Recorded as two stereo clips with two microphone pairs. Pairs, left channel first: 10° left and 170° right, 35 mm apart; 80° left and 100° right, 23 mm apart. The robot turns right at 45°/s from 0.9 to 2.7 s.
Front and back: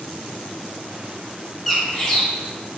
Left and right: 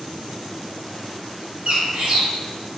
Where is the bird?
80° right, 0.5 m; by 2.2 s 55° right, 0.5 m.